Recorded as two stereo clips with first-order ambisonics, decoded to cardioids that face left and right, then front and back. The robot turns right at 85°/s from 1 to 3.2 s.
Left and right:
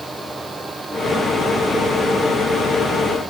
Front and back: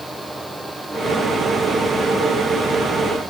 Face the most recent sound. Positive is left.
No sound to turn to.